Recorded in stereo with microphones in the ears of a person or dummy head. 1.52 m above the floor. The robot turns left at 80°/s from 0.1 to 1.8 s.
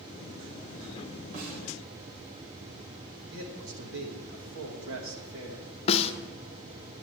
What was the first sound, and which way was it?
A snare drum, 45° right (ahead or behind).